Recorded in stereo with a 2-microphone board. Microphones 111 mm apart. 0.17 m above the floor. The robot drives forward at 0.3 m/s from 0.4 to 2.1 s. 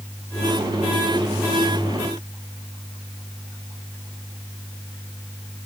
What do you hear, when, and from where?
Only background noise.